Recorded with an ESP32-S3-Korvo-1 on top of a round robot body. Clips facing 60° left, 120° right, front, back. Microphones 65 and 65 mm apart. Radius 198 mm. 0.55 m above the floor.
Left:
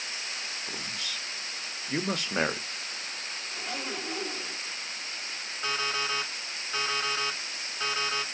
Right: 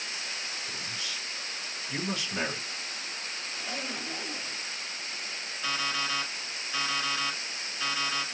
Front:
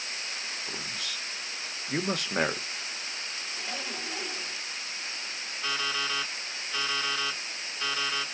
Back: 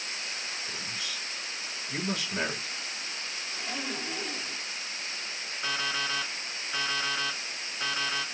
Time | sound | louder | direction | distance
0.7 | a man speaking | even, even | 25° left | 1.1 m
3.5 | a zipper | left 2 dB, back 3 dB | 100° left | 3.5 m
5.6 | an alarm clock | left 1 dB, even | 110° left | 1.7 m